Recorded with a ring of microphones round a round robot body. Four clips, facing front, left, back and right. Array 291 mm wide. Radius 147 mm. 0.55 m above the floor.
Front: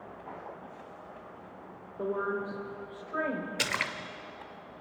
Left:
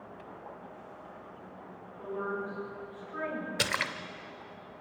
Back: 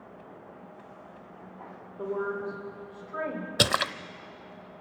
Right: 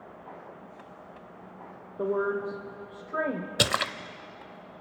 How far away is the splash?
About 0.6 m.